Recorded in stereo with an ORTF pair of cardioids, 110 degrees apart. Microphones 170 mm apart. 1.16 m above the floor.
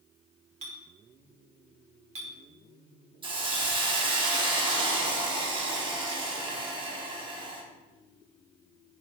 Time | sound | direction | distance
0.6 | a clink | 40° right | 1.3 m
3.2 | a hiss | 30° right | 1.4 m